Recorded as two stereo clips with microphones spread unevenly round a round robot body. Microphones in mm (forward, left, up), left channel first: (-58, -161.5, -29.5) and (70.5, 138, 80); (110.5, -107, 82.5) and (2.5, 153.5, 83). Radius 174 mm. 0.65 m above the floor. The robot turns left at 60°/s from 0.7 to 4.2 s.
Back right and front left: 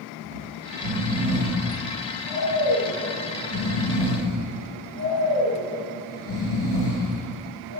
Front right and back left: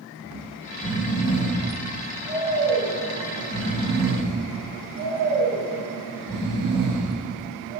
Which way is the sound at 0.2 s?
40° left.